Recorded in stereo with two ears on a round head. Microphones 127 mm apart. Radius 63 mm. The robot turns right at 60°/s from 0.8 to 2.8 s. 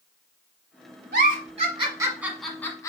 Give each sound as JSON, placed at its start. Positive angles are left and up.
{"t": 1.1, "sound": "a giggle", "side_deg": -70, "distance_m": 1.3}